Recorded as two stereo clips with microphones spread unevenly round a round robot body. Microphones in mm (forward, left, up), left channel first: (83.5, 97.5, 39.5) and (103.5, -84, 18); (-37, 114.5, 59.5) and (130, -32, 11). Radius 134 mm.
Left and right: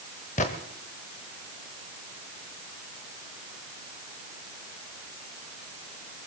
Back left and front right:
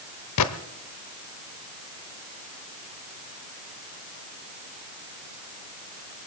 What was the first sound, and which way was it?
A gunshot, 160° left.